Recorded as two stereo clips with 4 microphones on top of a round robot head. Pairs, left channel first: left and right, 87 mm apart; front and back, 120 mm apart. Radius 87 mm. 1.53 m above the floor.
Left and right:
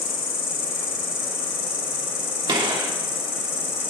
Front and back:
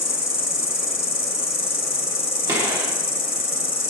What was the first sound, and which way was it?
An insect, 45° left.